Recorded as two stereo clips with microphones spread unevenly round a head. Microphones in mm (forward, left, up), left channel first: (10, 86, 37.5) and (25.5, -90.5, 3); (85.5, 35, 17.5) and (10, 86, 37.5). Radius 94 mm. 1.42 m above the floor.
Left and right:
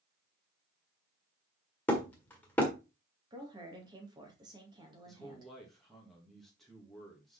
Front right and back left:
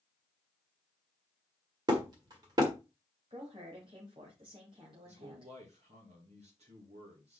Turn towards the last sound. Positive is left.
turn(degrees=-175)